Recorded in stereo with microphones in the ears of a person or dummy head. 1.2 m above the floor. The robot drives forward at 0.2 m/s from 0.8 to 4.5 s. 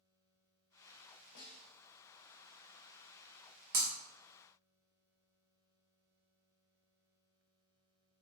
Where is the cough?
I don't hear a cough.